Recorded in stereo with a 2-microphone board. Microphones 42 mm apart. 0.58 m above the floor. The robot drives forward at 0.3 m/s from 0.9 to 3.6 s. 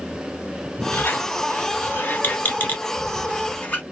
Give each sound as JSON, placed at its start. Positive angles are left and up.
{"t": 0.9, "sound": "a squeak", "side_deg": 65, "distance_m": 0.7}